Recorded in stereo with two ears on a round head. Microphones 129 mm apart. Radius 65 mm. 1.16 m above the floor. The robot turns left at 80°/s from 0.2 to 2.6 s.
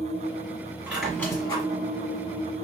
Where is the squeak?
160° right, 1.7 m; by 1.6 s 135° left, 1.7 m.